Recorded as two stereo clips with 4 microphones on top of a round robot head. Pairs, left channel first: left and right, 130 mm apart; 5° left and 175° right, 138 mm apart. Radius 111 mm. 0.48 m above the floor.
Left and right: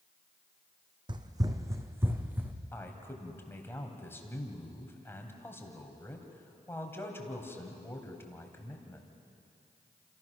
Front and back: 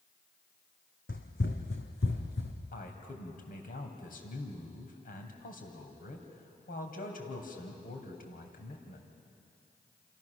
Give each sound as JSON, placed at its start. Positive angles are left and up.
{"t": 1.1, "sound": "running footsteps", "azimuth_deg": -35, "distance_m": 1.7}
{"t": 2.7, "sound": "a man speaking", "azimuth_deg": 20, "distance_m": 3.5}